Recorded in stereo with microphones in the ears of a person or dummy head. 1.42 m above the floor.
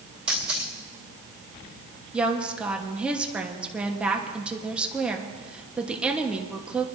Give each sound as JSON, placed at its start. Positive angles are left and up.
{"t": 0.3, "sound": "a camera shutter", "side_deg": -5, "distance_m": 1.6}
{"t": 2.1, "sound": "a woman speaking", "side_deg": -5, "distance_m": 1.2}